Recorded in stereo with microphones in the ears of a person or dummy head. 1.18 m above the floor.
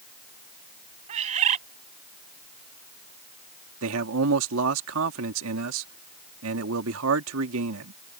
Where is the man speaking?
75° right (ahead or behind).